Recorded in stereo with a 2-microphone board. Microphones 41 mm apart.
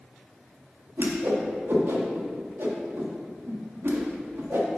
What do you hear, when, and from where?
1.0 s a whoosh: 70° right (ahead or behind), 1.5 m